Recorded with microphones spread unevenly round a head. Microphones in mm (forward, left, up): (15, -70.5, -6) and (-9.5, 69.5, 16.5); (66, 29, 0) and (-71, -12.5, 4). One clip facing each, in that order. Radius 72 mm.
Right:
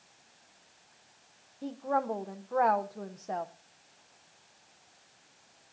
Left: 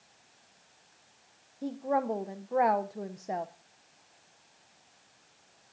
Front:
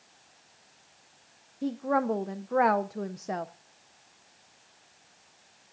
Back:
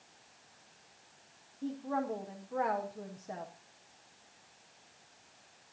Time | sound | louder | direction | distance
1.6 | a woman speaking | left 1 dB, front 8 dB | 20° left | 0.7 m